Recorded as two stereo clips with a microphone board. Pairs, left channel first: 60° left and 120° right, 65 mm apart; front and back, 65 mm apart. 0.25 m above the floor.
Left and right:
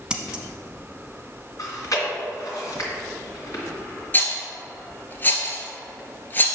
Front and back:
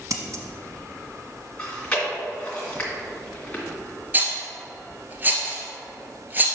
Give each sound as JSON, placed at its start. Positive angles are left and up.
{"t": 0.1, "sound": "scissors", "azimuth_deg": 165, "distance_m": 0.8}
{"t": 1.6, "sound": "chewing", "azimuth_deg": 75, "distance_m": 2.5}
{"t": 4.1, "sound": "a rattle", "azimuth_deg": 120, "distance_m": 1.3}